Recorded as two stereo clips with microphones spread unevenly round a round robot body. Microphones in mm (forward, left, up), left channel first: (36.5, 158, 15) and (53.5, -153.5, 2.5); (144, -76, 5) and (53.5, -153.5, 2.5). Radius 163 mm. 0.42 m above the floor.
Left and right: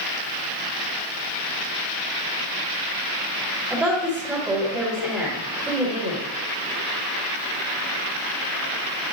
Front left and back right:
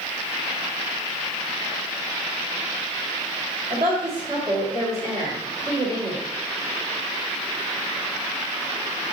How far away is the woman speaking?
About 2.0 m.